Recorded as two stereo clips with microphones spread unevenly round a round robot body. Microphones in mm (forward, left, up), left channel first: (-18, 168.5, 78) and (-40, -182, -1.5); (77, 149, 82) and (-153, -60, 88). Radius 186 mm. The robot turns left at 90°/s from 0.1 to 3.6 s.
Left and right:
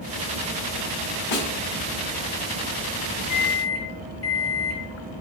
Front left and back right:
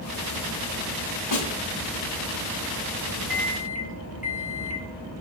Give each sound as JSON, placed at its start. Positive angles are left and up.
{"t": 1.3, "sound": "a snare drum", "azimuth_deg": 50, "distance_m": 2.0}
{"t": 3.3, "sound": "a microwave", "azimuth_deg": 135, "distance_m": 1.5}